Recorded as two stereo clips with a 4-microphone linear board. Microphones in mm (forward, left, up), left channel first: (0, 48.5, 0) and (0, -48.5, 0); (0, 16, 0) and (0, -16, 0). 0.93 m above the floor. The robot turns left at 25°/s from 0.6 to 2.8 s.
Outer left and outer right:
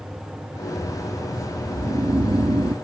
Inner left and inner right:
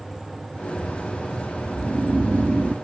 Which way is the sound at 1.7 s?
40° right (ahead or behind).